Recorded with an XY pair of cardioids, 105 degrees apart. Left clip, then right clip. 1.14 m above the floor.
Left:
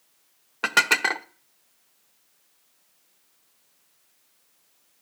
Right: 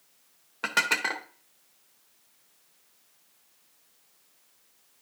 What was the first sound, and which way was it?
Dishes clattering, 40° left.